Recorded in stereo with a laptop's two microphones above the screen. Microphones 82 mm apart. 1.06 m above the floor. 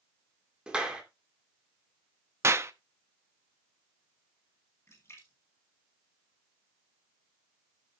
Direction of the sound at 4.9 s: 35° left (ahead or behind).